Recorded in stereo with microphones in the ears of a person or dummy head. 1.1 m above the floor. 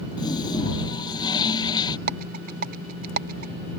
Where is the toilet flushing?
20° left (ahead or behind).